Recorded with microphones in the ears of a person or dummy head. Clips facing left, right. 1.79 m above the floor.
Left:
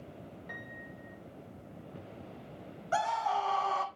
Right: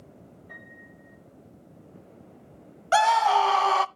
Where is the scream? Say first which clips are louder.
Right 10 dB; 75° right (ahead or behind), 0.5 m.